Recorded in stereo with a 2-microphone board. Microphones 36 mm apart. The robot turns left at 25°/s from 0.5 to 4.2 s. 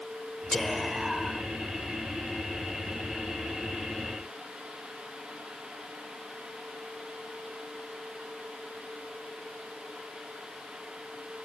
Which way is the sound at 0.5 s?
10° left (ahead or behind).